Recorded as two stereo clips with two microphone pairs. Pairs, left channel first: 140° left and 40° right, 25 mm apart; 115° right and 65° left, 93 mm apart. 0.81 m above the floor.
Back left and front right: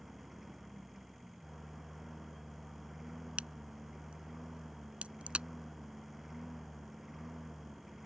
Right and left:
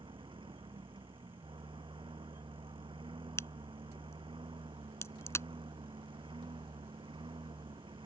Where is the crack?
55° right.